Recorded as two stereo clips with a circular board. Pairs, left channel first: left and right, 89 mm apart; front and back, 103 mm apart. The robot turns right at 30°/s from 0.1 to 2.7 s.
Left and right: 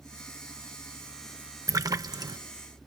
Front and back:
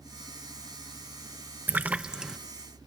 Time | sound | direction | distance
1.7 | a splash | 115° right | ?